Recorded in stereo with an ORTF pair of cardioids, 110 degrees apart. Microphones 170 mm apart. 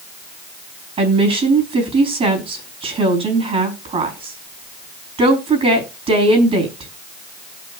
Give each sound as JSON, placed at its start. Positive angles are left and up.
{"t": 1.0, "sound": "a woman speaking", "azimuth_deg": -35, "distance_m": 4.5}